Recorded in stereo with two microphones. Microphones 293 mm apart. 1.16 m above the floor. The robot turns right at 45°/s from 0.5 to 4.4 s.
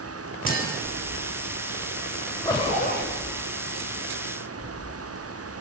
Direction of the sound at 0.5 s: 30° left (ahead or behind).